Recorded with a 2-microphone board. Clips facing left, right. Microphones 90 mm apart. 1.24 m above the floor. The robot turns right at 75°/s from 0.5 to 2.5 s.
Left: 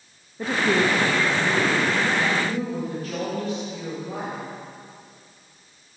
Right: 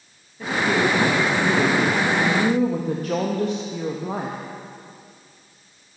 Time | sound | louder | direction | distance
0.4 | a woman speaking | even | 140° left | 1.7 m